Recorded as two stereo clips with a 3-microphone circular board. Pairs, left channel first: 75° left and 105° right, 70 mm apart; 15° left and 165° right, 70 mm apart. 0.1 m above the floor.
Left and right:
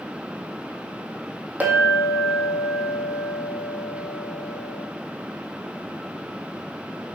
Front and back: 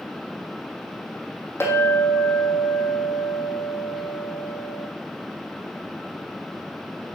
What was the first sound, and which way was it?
A clink, 40° right.